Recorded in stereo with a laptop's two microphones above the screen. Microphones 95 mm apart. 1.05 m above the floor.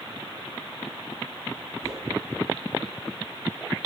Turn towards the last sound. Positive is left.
turn(degrees=-30)  # may be behind; listen again after turning